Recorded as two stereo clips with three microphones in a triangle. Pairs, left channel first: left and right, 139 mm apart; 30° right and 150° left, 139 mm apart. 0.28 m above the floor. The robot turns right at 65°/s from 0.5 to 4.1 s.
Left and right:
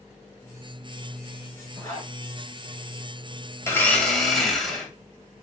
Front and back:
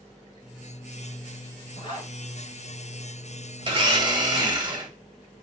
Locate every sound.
1.8 s a zipper: 15° left, 2.5 m; by 2.1 s 40° left, 2.5 m
3.6 s a blender: 145° left, 0.8 m; by 4.9 s 175° left, 0.8 m